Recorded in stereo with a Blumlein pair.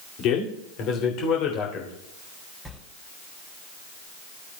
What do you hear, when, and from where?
0.2 s a man speaking: 35° left, 2 m
2.6 s a sliding door: 5° left, 2.5 m